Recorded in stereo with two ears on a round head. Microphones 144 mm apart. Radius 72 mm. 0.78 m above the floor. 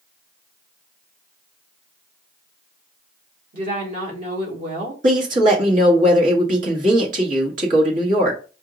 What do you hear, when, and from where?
3.5 s a woman speaking: 50° right (ahead or behind), 2 m
5.0 s a woman speaking: 50° right (ahead or behind), 1.6 m